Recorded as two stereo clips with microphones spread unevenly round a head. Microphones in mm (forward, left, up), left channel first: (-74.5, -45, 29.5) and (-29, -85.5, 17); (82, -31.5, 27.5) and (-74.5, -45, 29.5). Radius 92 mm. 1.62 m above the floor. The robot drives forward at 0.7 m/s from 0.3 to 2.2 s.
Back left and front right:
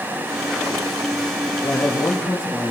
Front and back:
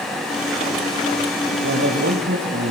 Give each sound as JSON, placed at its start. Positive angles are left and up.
{"t": 1.6, "sound": "a man speaking", "azimuth_deg": -175, "distance_m": 3.5}